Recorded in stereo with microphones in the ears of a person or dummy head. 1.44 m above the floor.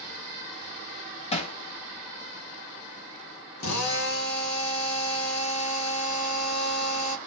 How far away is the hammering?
About 1.1 m.